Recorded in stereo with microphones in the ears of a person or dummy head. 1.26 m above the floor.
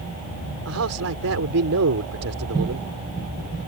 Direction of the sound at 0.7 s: 85° right.